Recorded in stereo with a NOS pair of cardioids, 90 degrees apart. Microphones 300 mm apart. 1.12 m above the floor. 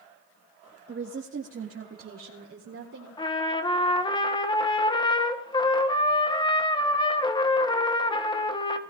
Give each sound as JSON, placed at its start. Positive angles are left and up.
{"t": 0.9, "sound": "a woman speaking", "azimuth_deg": -40, "distance_m": 1.4}
{"t": 3.2, "sound": "a trumpet", "azimuth_deg": 15, "distance_m": 1.2}